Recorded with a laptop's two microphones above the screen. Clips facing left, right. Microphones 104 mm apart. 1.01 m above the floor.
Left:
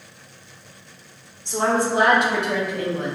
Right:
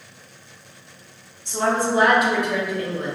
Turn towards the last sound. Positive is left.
turn(degrees=70)  # may be behind; listen again after turning